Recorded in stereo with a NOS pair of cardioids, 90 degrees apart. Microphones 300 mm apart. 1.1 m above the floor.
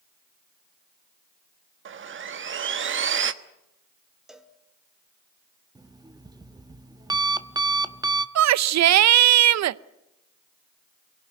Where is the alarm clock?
15° right, 1.1 m.